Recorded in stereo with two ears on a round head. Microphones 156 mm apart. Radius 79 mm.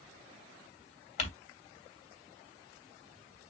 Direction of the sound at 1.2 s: 40° left (ahead or behind).